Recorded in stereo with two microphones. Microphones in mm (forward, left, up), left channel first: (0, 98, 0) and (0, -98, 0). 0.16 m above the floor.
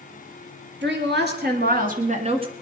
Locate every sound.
0.8 s a woman speaking: 65° right (ahead or behind), 3 m; by 2.5 s 25° right (ahead or behind), 1.7 m